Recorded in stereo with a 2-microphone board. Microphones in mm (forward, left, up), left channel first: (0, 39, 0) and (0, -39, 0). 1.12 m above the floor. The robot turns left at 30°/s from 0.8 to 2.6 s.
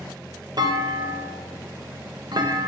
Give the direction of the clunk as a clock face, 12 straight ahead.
2 o'clock.